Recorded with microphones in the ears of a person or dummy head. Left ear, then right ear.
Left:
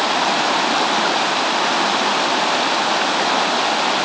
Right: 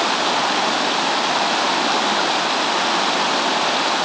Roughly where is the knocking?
No knocking in this recording.